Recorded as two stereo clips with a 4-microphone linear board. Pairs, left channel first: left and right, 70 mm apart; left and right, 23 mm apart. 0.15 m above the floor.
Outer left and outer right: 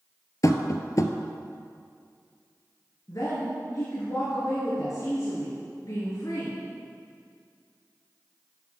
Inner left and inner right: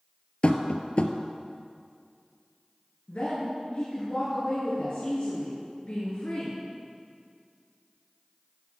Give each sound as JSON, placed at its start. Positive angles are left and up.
{"t": 0.4, "sound": "tapping", "side_deg": 55, "distance_m": 0.6}
{"t": 3.1, "sound": "a woman speaking", "side_deg": 55, "distance_m": 2.5}